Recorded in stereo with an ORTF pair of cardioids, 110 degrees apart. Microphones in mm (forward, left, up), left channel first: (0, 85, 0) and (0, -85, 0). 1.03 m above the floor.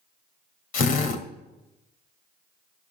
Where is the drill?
60° left, 2 m.